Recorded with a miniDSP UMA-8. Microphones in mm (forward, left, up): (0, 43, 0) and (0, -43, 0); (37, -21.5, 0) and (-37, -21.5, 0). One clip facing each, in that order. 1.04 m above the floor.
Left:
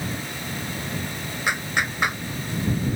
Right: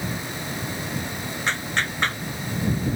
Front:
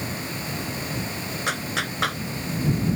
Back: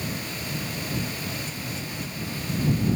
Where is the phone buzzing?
I don't hear a phone buzzing.